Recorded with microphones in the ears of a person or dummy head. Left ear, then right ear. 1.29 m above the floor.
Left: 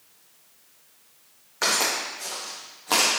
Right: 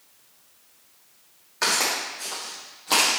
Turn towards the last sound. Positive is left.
turn(degrees=5)  # may be behind; listen again after turning